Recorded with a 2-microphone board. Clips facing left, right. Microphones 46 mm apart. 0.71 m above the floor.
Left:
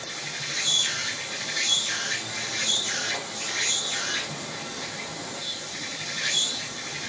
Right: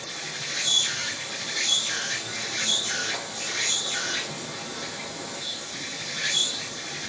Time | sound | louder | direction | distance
0.0 | an insect | left 1 dB | 5° right (ahead or behind) | 7 m